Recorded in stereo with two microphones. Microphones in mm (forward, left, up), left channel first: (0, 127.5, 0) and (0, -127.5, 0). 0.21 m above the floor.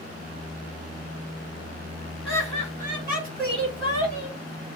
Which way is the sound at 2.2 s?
20° left (ahead or behind).